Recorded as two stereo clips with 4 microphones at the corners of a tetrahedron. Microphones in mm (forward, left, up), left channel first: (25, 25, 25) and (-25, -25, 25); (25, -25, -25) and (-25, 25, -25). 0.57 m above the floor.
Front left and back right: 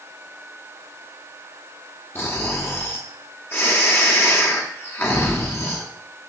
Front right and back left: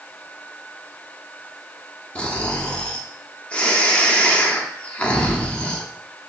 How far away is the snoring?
About 0.7 m.